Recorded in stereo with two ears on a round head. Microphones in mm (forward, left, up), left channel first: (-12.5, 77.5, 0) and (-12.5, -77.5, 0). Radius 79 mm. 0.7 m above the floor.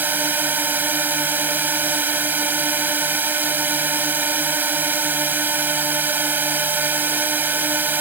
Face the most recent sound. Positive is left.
turn(degrees=-10)  # may be behind; listen again after turning